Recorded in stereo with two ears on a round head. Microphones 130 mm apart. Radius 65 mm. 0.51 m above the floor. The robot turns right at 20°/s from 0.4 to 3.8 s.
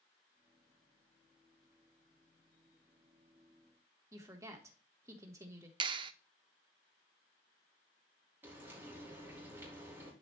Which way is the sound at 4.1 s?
20° right (ahead or behind).